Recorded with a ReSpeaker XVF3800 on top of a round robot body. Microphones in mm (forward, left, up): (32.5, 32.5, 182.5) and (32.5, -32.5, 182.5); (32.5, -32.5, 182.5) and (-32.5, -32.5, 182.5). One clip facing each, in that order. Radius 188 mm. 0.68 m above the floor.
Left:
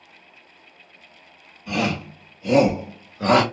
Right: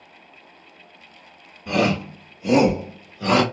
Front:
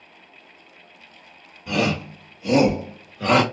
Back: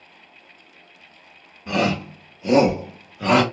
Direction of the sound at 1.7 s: 125° right.